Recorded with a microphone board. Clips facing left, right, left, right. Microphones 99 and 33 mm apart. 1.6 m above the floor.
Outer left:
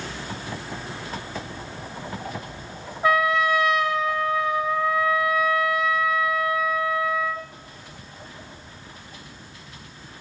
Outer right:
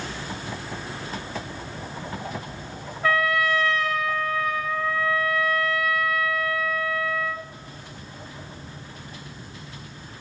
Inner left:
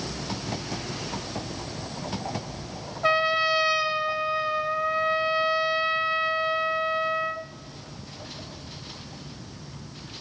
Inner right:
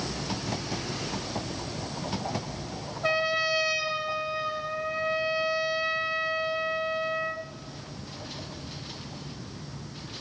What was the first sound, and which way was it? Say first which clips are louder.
A trumpet: outer left 2 dB, inner left 4 dB; 20° left (ahead or behind).